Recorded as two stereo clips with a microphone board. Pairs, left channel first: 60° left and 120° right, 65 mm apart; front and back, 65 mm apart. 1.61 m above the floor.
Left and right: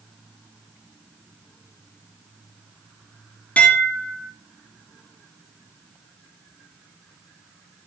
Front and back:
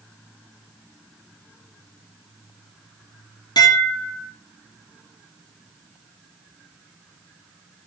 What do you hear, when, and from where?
3.6 s dishes clattering: 10° right, 3 m